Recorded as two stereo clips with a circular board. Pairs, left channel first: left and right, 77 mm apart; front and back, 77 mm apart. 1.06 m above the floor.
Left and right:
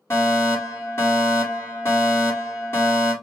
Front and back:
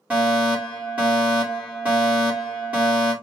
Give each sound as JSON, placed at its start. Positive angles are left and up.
{"t": 0.1, "sound": "a fire alarm", "azimuth_deg": 115, "distance_m": 2.0}